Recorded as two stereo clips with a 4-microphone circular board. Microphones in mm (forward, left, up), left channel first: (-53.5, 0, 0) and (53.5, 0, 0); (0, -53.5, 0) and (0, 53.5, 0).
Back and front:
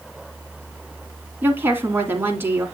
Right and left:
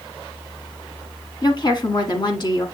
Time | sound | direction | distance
1.4 | a woman speaking | 65° right | 1.7 m